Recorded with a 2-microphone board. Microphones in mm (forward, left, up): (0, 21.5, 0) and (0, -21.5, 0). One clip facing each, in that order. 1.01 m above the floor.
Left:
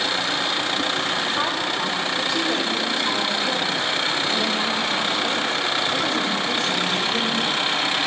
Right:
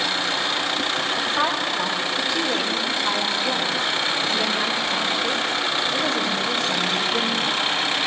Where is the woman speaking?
Centre (ahead or behind), 5.5 m.